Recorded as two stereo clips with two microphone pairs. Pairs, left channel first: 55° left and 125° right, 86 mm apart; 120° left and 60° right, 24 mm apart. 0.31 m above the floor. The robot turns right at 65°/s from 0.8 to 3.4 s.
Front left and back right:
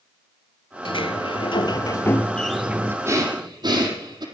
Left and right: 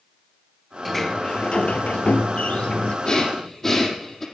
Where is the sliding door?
35° left, 1.2 m; by 3.0 s 170° left, 1.2 m.